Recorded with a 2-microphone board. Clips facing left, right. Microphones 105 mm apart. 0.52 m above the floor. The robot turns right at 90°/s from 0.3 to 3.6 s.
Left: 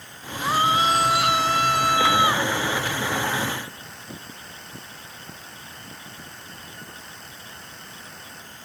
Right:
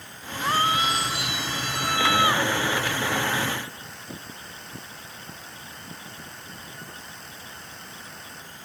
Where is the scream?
Straight ahead; by 2.5 s 175° right.